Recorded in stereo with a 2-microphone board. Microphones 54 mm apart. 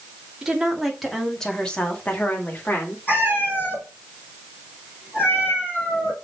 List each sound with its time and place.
0.4 s a woman speaking: 15° right (ahead or behind), 2 m; by 3.0 s 45° left (ahead or behind), 2 m
3.1 s a cat meowing: 35° left (ahead or behind), 4 m